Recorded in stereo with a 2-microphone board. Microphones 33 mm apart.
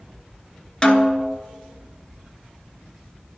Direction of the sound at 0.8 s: 25° left (ahead or behind).